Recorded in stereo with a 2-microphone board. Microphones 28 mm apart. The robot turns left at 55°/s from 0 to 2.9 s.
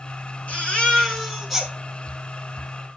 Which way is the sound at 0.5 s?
60° left.